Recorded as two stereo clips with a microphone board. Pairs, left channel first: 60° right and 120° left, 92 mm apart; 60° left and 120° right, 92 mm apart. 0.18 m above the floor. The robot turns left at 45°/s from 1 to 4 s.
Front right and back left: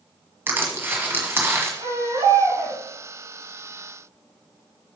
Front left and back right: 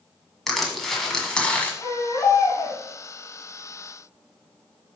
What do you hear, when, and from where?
0.5 s crushing: 145° left, 1.6 m; by 1.7 s 110° left, 1.6 m
1.8 s a baby crying: 125° left, 3.5 m; by 2.8 s 75° left, 3.5 m